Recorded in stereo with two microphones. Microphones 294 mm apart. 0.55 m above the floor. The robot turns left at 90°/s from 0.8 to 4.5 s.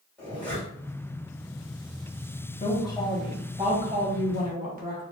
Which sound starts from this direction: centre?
A zipper, at 0.2 s.